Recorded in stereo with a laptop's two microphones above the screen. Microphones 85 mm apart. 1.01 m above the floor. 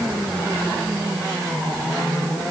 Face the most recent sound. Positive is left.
No sound to turn to.